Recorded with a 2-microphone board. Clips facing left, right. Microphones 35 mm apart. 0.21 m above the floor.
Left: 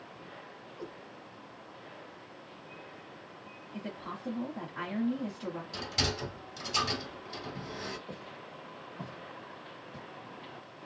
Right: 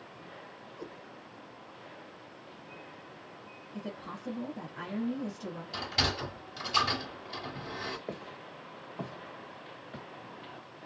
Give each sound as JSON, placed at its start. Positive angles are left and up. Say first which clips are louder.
{"t": 0.8, "sound": "a cat meowing", "louder": "left 1 dB", "side_deg": 0, "distance_m": 0.8}
{"t": 3.7, "sound": "a woman speaking", "louder": "even", "side_deg": 35, "distance_m": 1.2}
{"t": 5.7, "sound": "a sliding door", "louder": "right 3 dB", "side_deg": -20, "distance_m": 1.8}
{"t": 8.1, "sound": "footsteps", "louder": "right 3 dB", "side_deg": -70, "distance_m": 1.2}